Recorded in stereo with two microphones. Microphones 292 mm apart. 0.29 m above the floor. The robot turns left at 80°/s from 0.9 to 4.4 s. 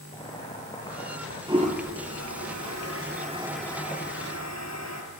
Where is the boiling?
165° left, 5.5 m; by 1.4 s 125° left, 5.5 m.